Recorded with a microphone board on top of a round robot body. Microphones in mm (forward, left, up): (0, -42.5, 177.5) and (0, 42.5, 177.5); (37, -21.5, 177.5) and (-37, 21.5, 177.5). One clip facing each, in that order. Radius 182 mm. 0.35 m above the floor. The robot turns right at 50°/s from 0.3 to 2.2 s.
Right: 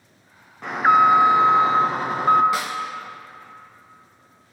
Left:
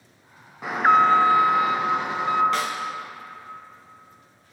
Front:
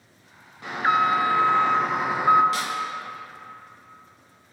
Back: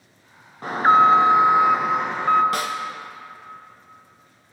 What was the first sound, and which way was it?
An alarm, 175° left.